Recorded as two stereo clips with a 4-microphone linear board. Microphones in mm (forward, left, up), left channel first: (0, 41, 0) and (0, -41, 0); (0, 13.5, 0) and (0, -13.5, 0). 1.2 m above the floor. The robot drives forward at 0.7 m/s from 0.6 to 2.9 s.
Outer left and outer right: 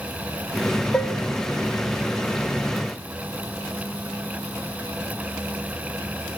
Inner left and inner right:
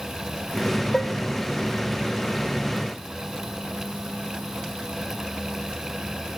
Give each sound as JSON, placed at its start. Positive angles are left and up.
{"t": 0.9, "sound": "dishes clattering", "side_deg": 15, "distance_m": 0.8}